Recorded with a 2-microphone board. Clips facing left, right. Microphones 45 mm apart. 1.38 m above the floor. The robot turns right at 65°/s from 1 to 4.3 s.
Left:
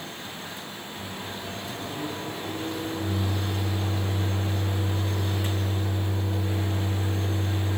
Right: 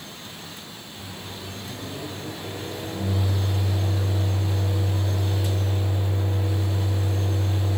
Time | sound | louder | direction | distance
1.0 | a microwave | left 1 dB | 100° left | 9.5 m